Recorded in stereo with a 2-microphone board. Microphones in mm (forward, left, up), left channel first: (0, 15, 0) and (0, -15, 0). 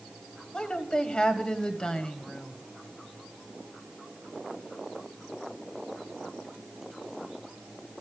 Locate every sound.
0.5 s a woman speaking: 35° left (ahead or behind), 1.4 m